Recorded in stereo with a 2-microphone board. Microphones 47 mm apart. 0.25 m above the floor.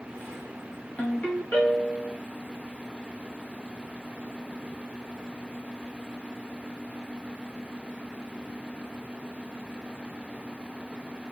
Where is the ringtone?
35° left (ahead or behind), 1.0 m.